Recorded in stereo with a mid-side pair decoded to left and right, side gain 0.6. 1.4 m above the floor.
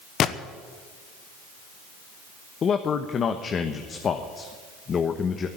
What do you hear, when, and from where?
0.2 s a gunshot: 50° left, 1.0 m
2.6 s a man speaking: 40° left, 1.2 m